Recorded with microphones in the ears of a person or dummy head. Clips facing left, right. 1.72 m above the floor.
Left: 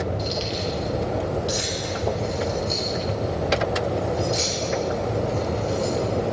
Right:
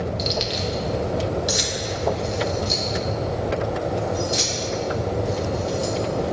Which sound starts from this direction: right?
Keys jangling, at 0.2 s.